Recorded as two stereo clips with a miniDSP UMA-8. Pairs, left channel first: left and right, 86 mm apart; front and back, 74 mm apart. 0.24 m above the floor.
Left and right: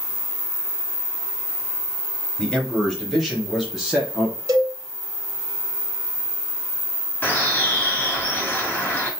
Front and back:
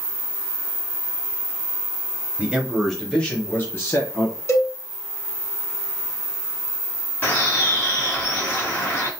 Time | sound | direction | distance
2.4 | a man speaking | 150° left | 1.0 m
4.5 | a cowbell | 50° right | 0.8 m
7.2 | a bird | 40° left | 1.5 m